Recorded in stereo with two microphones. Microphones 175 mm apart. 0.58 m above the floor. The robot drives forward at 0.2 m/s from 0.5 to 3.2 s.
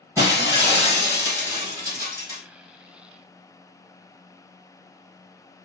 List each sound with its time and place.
0.2 s breaking glass: 20° right (ahead or behind), 2.0 m; by 2.4 s 15° right (ahead or behind), 2.5 m